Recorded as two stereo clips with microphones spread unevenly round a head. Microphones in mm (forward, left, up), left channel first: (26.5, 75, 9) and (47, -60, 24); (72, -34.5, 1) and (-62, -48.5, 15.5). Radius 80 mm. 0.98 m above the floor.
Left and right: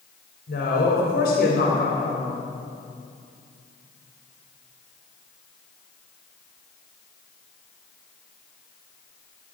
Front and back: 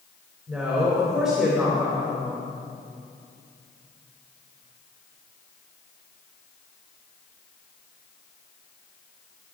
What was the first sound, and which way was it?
A woman speaking, 105° left.